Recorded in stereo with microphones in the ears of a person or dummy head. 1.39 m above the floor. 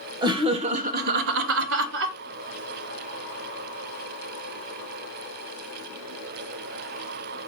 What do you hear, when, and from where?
0.2 s laughter: 25° right (ahead or behind), 0.8 m; by 2.2 s 60° right (ahead or behind), 0.7 m